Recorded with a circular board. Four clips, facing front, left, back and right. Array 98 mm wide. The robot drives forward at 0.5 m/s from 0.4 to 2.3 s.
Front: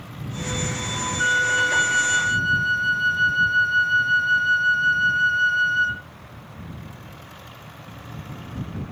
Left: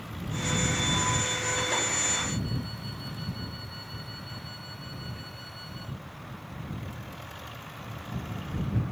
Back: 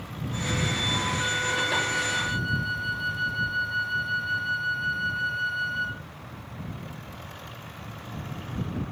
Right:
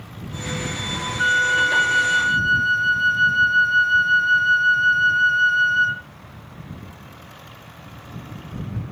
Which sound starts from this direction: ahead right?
A flute, at 1.2 s.